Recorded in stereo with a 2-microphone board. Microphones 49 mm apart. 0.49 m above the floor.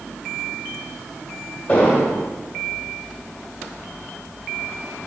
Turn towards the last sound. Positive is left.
turn(degrees=35)  # may be behind; listen again after turning